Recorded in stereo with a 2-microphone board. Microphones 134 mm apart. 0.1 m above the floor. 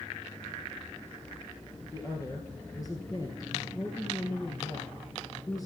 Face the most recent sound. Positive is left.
turn(degrees=30)  # may be behind; listen again after turning